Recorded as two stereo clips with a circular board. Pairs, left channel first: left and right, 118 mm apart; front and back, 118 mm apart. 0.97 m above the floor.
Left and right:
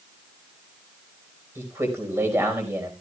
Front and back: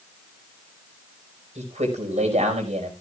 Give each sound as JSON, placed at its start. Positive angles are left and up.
{"t": 1.6, "sound": "a man speaking", "azimuth_deg": -160, "distance_m": 4.5}